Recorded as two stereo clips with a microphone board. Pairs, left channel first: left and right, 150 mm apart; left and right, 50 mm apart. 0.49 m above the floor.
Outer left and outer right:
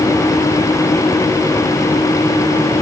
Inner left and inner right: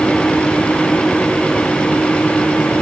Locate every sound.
Only background noise.